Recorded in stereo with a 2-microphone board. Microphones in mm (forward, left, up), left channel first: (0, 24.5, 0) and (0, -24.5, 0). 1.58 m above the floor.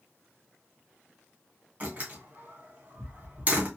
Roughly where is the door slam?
Right.